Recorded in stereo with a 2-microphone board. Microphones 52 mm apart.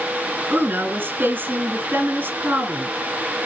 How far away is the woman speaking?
About 2 m.